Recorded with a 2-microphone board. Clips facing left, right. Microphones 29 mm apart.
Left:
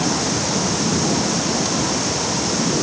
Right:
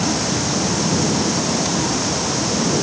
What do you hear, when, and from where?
Only background noise.